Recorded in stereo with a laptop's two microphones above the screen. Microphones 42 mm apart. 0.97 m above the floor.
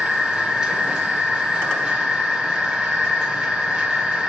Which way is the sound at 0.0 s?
20° right (ahead or behind).